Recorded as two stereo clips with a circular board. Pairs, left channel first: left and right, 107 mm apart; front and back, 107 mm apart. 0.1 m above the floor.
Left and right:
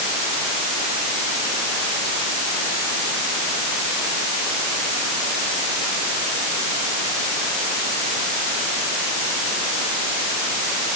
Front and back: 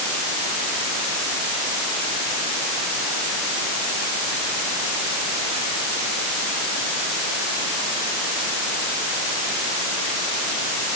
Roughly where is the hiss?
No hiss in this recording.